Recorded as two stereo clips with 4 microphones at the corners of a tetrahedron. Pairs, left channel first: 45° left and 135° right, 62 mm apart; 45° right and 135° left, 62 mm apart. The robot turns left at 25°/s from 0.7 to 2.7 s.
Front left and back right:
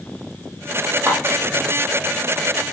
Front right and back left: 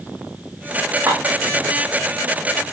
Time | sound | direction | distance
1.1 | dishes clattering | 165° left | 5.5 m